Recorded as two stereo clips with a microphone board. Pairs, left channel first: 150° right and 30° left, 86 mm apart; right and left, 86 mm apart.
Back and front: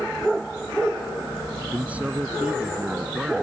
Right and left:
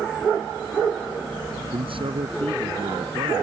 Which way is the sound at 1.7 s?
105° left.